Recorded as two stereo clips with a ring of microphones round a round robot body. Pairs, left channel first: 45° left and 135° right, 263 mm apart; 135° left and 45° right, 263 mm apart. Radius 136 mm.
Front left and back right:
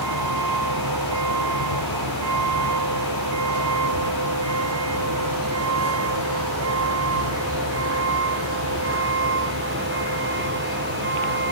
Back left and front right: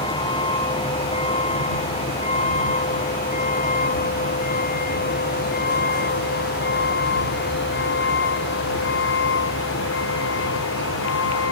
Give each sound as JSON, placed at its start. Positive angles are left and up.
{"t": 0.0, "sound": "a vehicle", "azimuth_deg": -155}